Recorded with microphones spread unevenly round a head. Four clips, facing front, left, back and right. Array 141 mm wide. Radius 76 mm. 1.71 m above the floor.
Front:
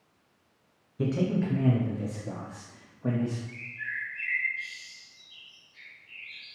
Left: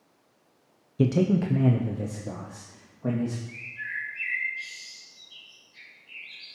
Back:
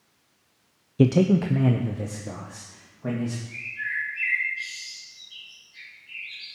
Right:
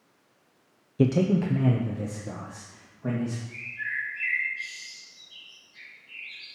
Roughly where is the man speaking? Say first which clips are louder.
Even, back 8 dB; behind left.